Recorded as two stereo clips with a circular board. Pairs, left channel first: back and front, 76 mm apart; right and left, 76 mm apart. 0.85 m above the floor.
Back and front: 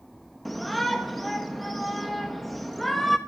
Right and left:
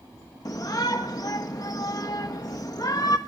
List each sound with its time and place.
0.5 s a shout: 90° right, 0.9 m